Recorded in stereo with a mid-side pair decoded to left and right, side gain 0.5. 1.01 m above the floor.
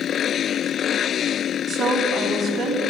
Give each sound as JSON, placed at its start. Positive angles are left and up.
{"t": 1.7, "sound": "a woman speaking", "azimuth_deg": -35, "distance_m": 5.5}